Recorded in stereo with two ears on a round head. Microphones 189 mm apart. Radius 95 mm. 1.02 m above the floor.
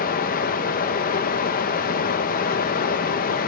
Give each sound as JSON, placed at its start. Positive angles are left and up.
{"t": 0.0, "sound": "running water", "side_deg": 45, "distance_m": 0.7}